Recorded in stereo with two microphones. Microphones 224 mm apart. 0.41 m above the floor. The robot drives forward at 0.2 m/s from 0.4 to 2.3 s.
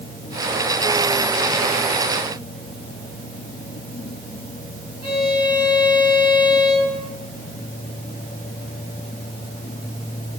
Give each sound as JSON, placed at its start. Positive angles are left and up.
{"t": 5.0, "sound": "a violin", "side_deg": 25, "distance_m": 3.0}